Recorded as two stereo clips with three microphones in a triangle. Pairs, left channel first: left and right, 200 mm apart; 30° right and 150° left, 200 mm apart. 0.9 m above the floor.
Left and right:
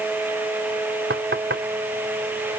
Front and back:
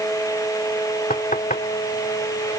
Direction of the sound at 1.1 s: 75° right.